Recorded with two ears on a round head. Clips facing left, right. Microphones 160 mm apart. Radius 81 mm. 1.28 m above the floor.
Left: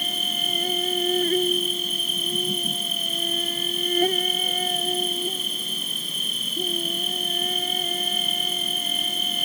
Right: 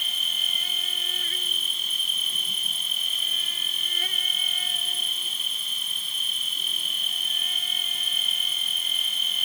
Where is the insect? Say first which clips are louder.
Left 11 dB; 35° left (ahead or behind).